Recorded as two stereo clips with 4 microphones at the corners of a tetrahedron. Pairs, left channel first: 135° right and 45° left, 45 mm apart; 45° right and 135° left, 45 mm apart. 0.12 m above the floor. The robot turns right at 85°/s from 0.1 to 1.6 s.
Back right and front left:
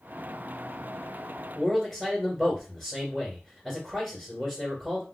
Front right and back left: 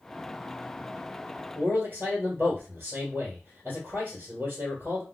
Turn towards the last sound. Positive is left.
turn(degrees=140)